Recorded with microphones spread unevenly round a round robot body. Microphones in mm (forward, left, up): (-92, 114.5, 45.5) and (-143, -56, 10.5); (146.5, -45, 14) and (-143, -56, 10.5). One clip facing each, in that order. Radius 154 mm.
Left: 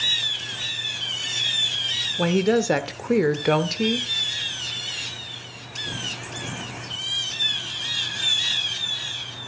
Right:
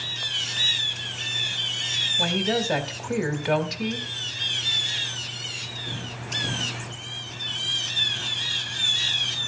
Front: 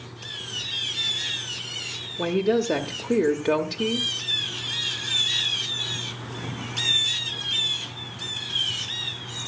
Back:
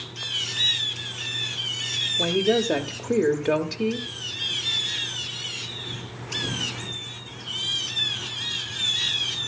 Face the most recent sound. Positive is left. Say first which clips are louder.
# left 6 dB, even
turn(degrees=85)